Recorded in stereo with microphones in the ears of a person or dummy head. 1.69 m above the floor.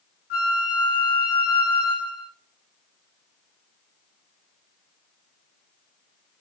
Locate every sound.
0.3 s a flute: 40° left (ahead or behind), 0.5 m